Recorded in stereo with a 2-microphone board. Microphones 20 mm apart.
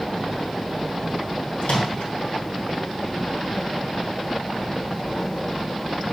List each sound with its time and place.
1.6 s a microwave: 75° left (ahead or behind), 3.5 m